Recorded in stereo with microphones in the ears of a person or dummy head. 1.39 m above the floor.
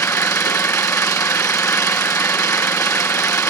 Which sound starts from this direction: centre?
An engine running, at 0.0 s.